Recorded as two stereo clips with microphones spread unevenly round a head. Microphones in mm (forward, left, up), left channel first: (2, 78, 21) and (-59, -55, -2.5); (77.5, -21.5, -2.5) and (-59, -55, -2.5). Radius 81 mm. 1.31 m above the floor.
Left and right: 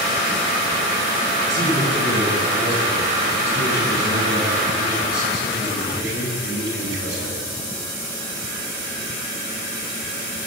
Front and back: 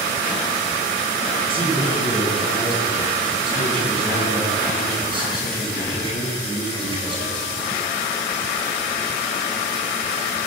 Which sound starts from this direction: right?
A man speaking, at 1.5 s.